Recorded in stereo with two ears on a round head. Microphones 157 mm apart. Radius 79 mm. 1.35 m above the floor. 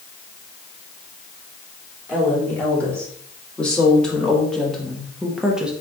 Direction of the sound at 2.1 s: 10° left (ahead or behind).